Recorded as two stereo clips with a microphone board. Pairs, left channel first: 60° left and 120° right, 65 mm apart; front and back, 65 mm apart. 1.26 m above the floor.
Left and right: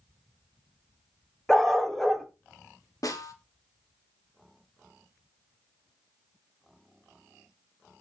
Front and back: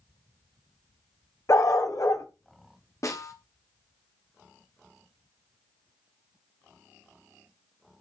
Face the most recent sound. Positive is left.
turn(degrees=35)